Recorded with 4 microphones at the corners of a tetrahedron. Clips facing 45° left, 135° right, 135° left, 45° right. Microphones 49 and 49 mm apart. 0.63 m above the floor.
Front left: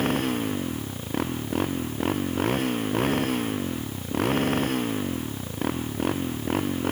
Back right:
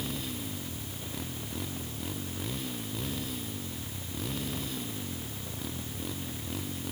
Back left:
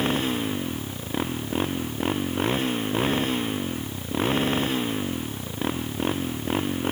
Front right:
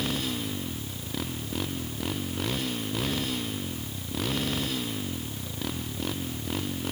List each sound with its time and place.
0.0 s a motorcycle: 80° left